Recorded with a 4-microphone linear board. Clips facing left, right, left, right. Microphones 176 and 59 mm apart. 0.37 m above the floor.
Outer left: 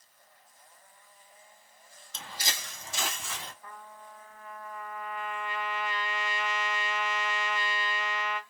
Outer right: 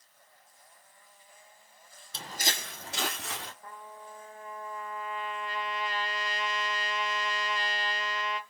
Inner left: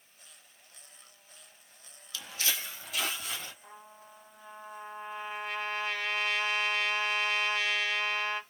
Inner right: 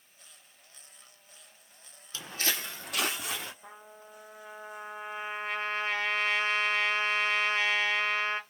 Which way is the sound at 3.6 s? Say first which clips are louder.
Outer right 2 dB, inner right 2 dB; 35° right (ahead or behind).